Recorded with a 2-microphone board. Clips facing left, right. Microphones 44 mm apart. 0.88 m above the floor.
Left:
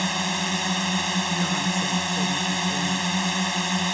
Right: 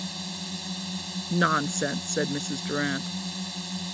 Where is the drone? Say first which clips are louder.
Left 11 dB; 60° left (ahead or behind).